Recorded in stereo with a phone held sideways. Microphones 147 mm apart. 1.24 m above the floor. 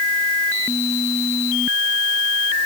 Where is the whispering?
I don't hear whispering.